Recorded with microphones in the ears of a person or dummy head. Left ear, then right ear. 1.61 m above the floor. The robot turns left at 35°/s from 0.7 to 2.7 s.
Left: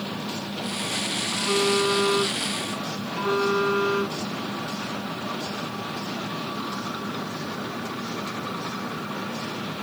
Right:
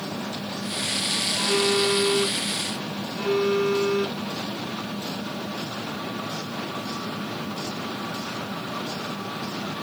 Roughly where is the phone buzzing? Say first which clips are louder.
Left 1 dB; behind left.